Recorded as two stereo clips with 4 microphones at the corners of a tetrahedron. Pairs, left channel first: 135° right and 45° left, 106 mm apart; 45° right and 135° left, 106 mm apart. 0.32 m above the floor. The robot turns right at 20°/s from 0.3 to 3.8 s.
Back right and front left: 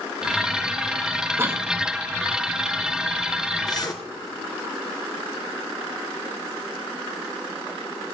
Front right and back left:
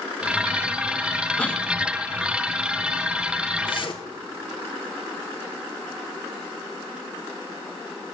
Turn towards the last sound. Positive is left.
turn(degrees=-80)